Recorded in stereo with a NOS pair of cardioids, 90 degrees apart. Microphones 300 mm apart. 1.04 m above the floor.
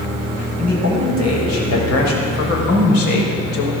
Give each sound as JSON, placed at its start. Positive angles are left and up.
{"t": 0.6, "sound": "a man speaking", "azimuth_deg": 65, "distance_m": 7.0}